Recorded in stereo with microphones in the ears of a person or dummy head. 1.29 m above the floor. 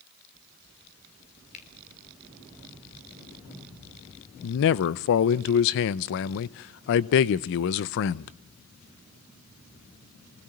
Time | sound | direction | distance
1.5 | a finger snap | 35° left (ahead or behind) | 3.5 m
4.4 | a man speaking | 60° left (ahead or behind) | 0.6 m